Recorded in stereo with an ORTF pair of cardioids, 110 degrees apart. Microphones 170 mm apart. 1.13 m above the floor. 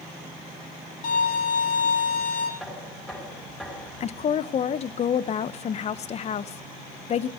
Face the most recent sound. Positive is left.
turn(degrees=40)